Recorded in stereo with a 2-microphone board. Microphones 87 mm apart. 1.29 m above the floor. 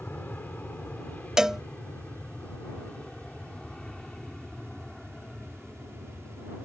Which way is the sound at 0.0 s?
20° left (ahead or behind).